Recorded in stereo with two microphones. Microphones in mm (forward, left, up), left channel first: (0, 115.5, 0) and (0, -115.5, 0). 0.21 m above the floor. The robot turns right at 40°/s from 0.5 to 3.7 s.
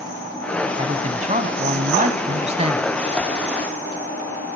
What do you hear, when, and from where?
0.8 s a man speaking: 130° right, 1.1 m; by 3.0 s 40° right, 1.1 m